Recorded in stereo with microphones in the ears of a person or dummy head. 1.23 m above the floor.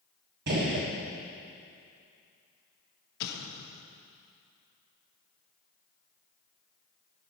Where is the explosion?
60° left (ahead or behind), 1.2 m.